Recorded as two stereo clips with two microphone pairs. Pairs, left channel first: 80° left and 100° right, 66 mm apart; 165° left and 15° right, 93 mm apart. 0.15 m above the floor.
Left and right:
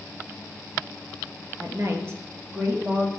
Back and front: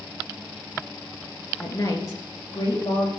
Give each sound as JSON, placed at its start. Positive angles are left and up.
{"t": 1.6, "sound": "a woman speaking", "azimuth_deg": -140, "distance_m": 2.5}